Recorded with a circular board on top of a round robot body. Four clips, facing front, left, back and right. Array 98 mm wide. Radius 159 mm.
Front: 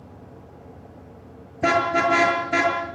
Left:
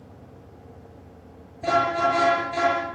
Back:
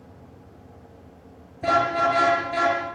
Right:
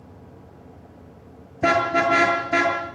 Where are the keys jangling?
I don't hear keys jangling.